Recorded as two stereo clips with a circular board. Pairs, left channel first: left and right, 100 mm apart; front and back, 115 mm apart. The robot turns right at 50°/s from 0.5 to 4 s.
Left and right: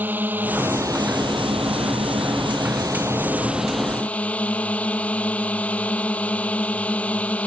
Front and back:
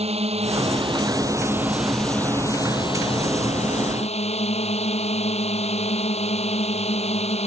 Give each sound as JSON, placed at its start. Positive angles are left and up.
{"t": 0.0, "sound": "a drone", "azimuth_deg": -160}